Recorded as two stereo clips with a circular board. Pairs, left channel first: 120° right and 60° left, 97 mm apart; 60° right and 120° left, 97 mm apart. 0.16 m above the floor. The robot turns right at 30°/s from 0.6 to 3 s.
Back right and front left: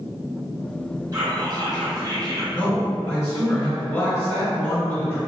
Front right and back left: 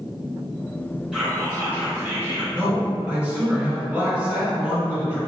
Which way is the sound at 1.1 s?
40° left.